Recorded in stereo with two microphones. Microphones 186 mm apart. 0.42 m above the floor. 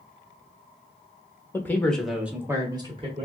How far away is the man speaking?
About 0.9 m.